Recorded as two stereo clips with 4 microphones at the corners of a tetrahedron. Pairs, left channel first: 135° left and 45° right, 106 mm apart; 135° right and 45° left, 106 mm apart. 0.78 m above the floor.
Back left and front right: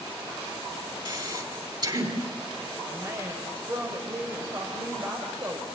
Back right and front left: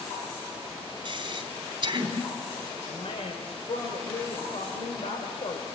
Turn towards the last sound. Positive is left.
turn(degrees=-105)